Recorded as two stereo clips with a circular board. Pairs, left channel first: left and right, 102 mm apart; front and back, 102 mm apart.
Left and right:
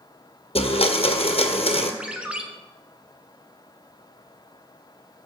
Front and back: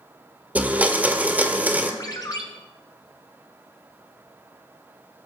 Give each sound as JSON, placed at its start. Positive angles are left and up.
{"t": 0.6, "sound": "a blender", "azimuth_deg": 105, "distance_m": 1.4}
{"t": 2.0, "sound": "a ringtone", "azimuth_deg": -15, "distance_m": 1.3}